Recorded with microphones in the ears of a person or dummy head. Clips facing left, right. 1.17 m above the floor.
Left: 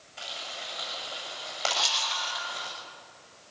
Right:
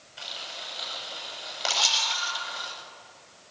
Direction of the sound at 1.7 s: 40° right (ahead or behind).